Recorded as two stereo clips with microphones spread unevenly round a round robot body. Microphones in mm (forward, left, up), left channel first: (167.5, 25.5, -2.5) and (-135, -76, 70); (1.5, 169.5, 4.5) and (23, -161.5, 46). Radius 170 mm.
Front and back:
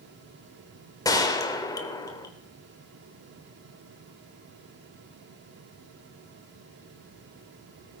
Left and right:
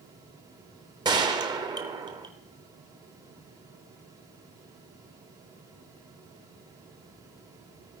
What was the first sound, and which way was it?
A gunshot, 80° right.